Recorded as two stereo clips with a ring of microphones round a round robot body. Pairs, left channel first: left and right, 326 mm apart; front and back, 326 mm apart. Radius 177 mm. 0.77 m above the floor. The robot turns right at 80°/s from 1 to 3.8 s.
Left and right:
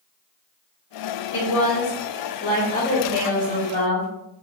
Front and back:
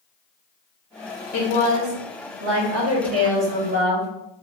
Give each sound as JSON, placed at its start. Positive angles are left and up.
{"t": 1.3, "sound": "a woman speaking", "azimuth_deg": 45, "distance_m": 0.9}